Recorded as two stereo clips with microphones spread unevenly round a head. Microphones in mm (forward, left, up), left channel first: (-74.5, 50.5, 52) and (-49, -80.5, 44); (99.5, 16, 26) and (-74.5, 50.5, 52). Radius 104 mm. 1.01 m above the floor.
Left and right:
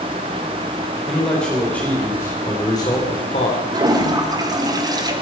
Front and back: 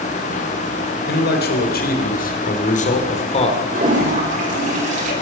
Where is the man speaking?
15° left, 4 m; by 3.6 s 45° left, 3 m.